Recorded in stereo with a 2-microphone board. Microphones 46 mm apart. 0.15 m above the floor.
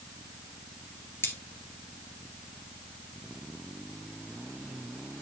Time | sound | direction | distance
1.2 | cutlery clinking | 60° left (ahead or behind) | 1.8 m